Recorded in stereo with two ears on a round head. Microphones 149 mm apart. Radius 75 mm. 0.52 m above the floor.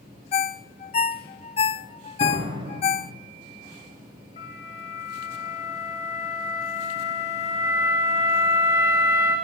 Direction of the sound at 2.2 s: 30° right (ahead or behind).